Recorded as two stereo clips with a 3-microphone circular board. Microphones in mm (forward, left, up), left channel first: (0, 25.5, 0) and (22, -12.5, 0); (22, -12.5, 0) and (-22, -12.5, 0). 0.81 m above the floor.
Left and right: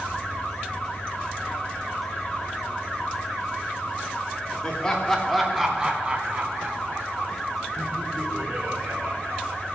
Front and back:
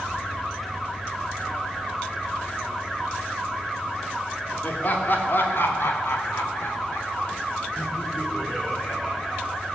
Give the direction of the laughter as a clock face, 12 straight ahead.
10 o'clock.